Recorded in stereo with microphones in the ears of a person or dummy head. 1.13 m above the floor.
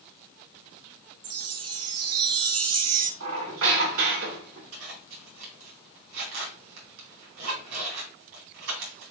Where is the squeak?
85° right, 2.5 m.